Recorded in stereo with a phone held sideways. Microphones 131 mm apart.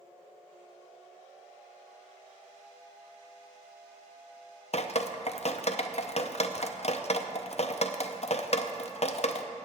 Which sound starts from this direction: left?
Dripping, at 4.7 s.